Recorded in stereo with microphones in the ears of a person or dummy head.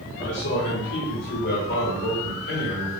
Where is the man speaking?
60° left (ahead or behind), 1.4 m; by 2.9 s 55° left (ahead or behind), 3 m.